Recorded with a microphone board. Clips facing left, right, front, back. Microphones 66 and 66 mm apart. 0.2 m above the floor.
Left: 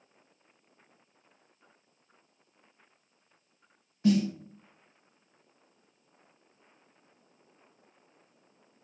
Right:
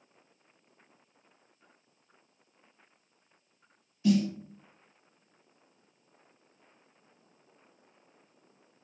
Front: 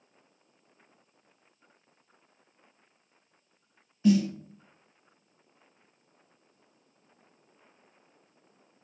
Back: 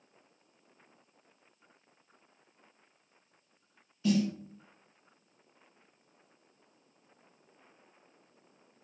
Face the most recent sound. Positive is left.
turn(degrees=60)